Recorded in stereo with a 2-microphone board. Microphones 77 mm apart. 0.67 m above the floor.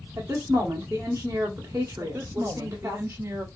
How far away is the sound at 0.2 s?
About 2.5 m.